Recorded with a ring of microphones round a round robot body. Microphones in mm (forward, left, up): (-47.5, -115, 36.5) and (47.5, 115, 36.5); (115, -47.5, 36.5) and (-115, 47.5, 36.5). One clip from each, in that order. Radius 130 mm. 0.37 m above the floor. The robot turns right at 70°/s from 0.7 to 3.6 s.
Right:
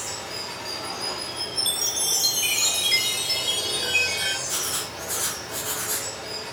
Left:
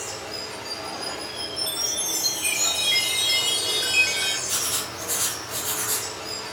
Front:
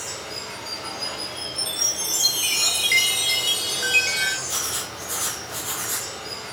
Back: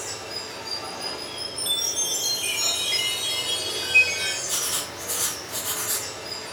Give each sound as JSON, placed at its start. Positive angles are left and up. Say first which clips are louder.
{"t": 0.0, "sound": "running water", "louder": "even, front 1 dB", "azimuth_deg": -115, "distance_m": 0.9}
{"t": 1.6, "sound": "a chime", "louder": "right 2 dB, even", "azimuth_deg": -125, "distance_m": 0.8}
{"t": 4.5, "sound": "writing", "louder": "left 1 dB, even", "azimuth_deg": 110, "distance_m": 1.3}